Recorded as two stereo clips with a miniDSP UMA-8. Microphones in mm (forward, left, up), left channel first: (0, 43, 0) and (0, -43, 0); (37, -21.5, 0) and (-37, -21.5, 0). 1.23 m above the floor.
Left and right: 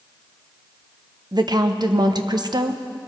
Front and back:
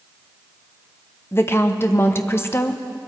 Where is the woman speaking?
55° right, 0.9 m.